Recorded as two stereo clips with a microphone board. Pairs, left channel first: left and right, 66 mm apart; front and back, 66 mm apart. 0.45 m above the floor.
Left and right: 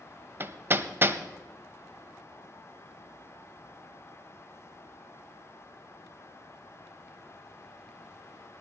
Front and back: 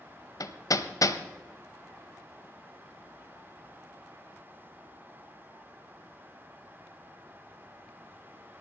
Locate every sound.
0.4 s hammering: 30° right, 0.8 m